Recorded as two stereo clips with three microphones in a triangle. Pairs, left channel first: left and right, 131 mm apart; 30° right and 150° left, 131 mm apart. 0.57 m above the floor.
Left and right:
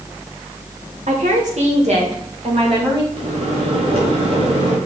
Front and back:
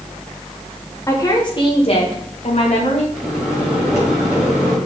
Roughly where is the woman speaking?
Right.